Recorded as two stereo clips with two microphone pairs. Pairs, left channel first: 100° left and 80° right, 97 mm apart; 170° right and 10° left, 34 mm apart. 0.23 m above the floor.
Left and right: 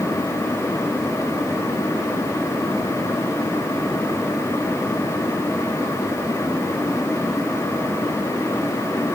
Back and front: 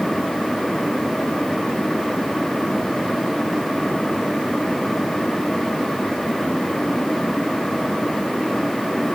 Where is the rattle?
I don't hear a rattle.